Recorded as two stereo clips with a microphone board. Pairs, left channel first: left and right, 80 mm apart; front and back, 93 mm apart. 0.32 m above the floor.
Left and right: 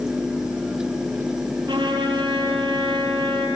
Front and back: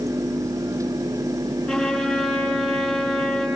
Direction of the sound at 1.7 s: 75° right.